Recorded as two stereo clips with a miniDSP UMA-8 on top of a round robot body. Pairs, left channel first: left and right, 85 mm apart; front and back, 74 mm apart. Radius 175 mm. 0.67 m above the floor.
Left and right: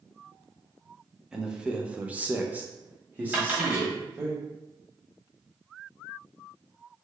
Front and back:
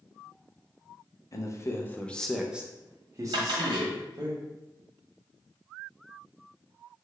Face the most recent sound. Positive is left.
turn(degrees=-160)